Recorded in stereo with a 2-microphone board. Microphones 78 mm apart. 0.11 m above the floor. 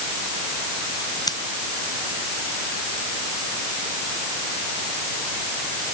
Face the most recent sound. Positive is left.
turn(degrees=55)  # may be behind; listen again after turning